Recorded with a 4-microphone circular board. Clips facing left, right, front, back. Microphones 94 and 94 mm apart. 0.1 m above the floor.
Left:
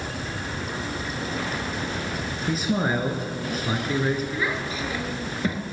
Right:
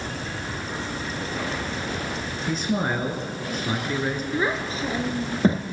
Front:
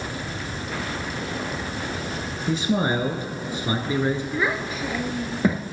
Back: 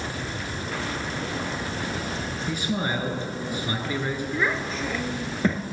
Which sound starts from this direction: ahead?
A man speaking, at 2.5 s.